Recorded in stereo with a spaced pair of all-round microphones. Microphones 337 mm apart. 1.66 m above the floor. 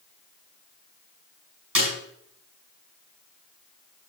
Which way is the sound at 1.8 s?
75° right (ahead or behind).